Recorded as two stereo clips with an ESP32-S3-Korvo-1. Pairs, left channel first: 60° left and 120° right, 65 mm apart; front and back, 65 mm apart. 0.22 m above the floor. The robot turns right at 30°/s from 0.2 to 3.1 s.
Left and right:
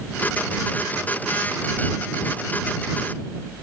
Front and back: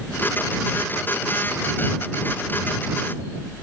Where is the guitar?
I don't hear a guitar.